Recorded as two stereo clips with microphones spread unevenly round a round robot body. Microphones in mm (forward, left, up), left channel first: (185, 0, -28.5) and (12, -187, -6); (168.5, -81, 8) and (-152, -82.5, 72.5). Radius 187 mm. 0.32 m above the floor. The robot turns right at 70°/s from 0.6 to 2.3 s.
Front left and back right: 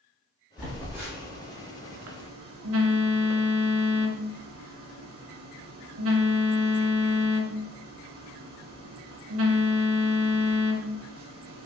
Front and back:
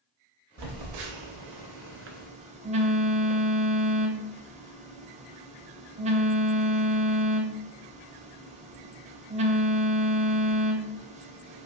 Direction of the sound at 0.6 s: 135° left.